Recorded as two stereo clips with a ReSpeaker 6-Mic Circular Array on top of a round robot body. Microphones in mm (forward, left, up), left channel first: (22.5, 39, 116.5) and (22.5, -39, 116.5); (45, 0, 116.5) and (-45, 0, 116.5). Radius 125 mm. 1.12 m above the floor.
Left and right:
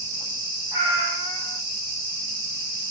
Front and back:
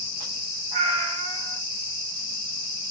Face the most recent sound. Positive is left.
turn(degrees=-150)